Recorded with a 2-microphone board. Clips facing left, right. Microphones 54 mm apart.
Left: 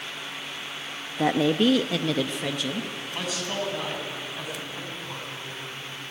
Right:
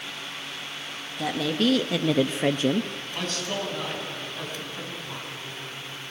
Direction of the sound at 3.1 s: 10° left (ahead or behind).